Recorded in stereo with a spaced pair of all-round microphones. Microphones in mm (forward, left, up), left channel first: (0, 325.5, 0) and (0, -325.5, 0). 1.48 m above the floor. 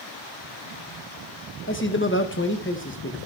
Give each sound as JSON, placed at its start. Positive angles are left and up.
{"t": 1.7, "sound": "a man speaking", "side_deg": 20, "distance_m": 1.5}